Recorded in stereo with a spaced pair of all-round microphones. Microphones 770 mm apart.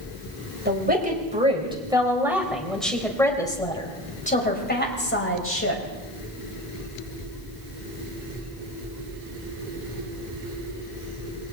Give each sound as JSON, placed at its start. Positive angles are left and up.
{"t": 0.7, "sound": "a woman speaking", "side_deg": -15, "distance_m": 5.0}